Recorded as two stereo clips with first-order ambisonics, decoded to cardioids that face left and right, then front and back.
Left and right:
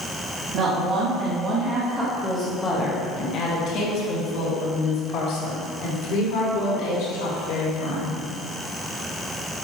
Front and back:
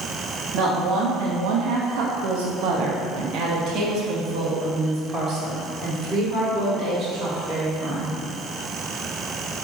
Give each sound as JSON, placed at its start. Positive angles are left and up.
{"t": 0.5, "sound": "a woman speaking", "azimuth_deg": -135, "distance_m": 1.5}